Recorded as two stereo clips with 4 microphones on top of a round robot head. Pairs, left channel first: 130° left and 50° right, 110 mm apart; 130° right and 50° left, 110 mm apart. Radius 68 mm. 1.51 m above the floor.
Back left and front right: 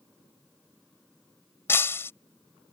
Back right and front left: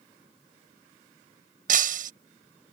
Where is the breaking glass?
55° left.